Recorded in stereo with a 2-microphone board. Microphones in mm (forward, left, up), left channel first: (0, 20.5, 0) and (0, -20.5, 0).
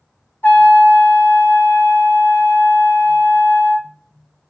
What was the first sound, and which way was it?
A trumpet, 60° left (ahead or behind).